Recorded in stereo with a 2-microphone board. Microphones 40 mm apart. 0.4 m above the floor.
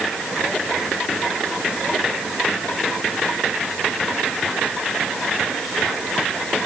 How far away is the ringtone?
No ringtone in this recording.